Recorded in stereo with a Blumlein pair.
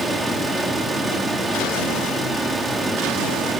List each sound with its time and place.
0.0 s a fan: 5° right, 1.6 m